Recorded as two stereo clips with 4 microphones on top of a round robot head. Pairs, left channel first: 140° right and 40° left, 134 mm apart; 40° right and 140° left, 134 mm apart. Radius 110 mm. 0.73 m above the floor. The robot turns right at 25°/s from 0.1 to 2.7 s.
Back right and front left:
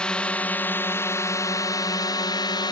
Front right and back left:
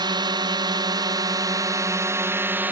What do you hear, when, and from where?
0.0 s a drone: 140° left; by 2.7 s 155° right